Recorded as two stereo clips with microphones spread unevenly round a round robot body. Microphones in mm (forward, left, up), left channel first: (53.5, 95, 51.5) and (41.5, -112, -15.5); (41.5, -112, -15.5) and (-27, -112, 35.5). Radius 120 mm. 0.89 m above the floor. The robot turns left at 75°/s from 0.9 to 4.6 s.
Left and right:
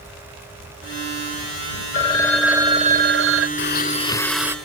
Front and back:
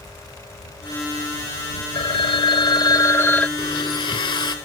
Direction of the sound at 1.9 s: 35° left.